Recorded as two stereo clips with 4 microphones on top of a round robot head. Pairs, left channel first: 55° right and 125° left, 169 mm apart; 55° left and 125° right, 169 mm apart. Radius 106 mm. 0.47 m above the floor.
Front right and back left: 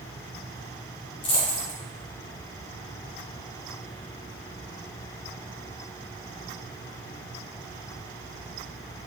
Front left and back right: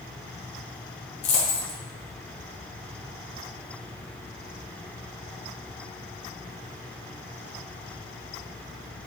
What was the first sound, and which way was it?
A dropped coin, 5° left.